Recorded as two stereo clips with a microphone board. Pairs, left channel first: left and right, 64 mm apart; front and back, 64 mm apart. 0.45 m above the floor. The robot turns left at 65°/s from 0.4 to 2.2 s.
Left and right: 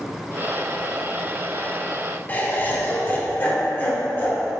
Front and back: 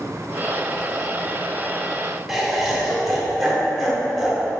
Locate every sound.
2.3 s laughter: 90° left, 0.8 m